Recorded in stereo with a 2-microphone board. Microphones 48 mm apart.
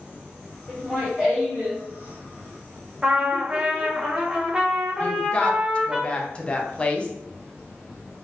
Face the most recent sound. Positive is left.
turn(degrees=20)  # may be behind; listen again after turning